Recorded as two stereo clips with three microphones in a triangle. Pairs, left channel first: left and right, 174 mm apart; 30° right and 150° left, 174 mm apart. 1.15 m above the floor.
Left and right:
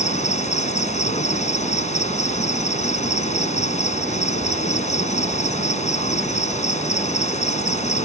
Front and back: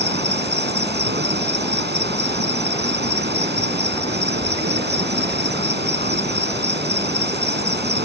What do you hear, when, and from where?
0.0 s an insect: 140° left